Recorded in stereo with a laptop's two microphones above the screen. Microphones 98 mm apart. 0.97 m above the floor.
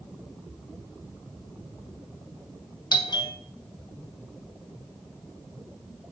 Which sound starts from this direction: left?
A doorbell, at 2.9 s.